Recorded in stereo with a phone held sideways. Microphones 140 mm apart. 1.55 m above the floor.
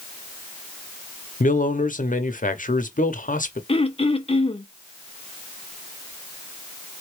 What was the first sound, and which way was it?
A man speaking, 70° left (ahead or behind).